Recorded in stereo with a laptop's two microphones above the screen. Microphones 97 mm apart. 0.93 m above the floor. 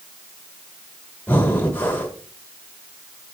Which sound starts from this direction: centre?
Breathing, at 1.3 s.